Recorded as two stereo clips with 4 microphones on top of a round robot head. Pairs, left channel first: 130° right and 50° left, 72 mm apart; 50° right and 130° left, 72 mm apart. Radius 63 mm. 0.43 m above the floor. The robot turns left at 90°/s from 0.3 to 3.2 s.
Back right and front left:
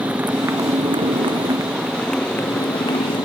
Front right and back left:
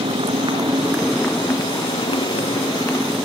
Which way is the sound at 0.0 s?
120° left.